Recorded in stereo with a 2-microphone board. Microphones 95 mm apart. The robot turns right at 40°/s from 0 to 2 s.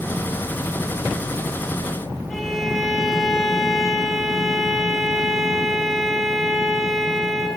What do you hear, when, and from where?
2.3 s a violin: centre (ahead or behind), 3.5 m